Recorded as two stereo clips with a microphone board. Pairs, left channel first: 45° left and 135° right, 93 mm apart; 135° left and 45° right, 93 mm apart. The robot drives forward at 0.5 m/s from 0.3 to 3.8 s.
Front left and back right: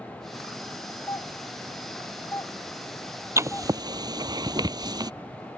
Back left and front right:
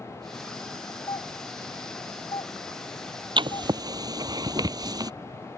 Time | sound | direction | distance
1.1 | a doorbell | 100° left | ?
3.4 | writing | 75° right | ?